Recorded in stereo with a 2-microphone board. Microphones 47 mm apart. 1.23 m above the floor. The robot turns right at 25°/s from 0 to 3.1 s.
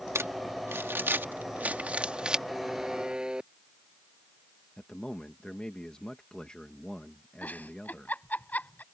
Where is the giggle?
35° left (ahead or behind).